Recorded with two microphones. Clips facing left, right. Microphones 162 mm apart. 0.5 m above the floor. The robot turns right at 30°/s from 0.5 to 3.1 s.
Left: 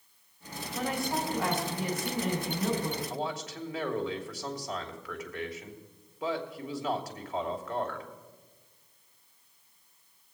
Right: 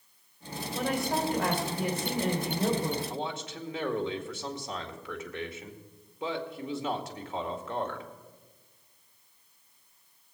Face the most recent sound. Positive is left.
turn(degrees=-25)  # may be behind; listen again after turning